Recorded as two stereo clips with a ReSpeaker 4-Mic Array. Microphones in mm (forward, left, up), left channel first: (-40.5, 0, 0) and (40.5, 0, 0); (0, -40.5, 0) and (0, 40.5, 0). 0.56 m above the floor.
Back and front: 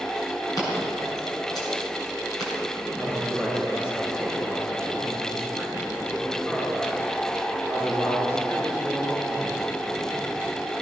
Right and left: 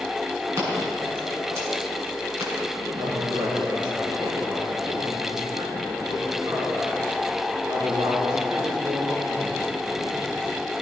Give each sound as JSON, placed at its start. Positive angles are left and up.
{"t": 0.6, "sound": "scissors", "azimuth_deg": 145, "distance_m": 6.5}
{"t": 2.8, "sound": "a man speaking", "azimuth_deg": 120, "distance_m": 6.5}